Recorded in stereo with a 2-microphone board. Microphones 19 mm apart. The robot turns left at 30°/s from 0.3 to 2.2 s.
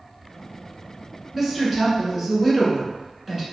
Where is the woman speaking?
5° right (ahead or behind), 1.1 m; by 3.4 s 15° right (ahead or behind), 1.1 m.